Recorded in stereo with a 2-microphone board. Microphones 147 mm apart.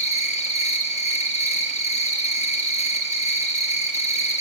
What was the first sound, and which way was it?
An insect, 45° left (ahead or behind).